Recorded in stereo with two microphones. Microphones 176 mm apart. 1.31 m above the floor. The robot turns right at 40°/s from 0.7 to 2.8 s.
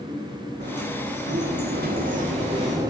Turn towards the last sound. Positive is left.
turn(degrees=-20)